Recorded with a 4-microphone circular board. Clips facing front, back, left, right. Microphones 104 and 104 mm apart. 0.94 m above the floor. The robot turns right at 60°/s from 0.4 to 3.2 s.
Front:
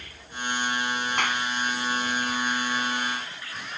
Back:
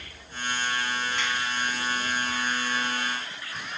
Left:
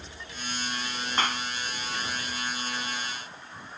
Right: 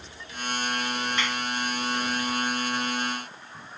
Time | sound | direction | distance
1.2 | a clap | 35° left | ?